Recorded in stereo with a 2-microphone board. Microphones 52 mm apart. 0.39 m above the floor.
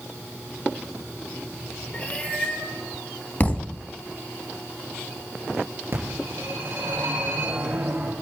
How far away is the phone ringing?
About 3.5 m.